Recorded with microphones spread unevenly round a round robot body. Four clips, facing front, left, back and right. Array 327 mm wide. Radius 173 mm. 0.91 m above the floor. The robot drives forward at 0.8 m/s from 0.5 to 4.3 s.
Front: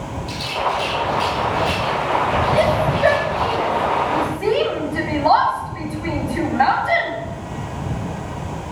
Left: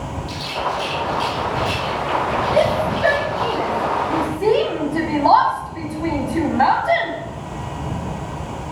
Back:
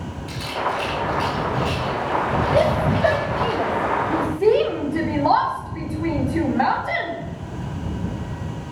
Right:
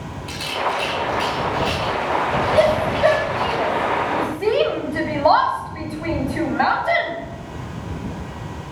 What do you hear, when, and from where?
0.3 s a rattle: 145° right, 0.5 m; by 3.5 s 175° right, 3 m
2.5 s a shout: 140° left, 1.9 m; by 7.1 s 155° left, 3 m